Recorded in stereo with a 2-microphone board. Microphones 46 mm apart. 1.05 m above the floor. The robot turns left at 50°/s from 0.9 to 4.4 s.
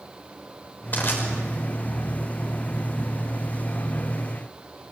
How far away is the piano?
I don't hear a piano.